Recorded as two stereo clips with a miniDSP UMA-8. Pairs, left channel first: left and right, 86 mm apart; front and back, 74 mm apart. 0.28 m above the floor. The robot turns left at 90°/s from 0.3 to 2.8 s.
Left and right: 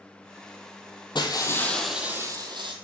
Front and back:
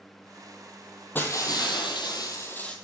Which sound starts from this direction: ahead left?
Breaking glass, at 1.1 s.